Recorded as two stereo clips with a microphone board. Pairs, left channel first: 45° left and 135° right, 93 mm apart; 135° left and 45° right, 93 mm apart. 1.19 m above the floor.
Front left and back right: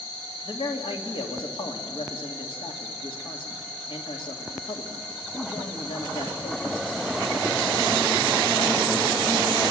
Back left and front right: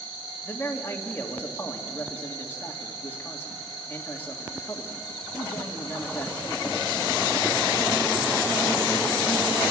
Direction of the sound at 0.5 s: 70° left.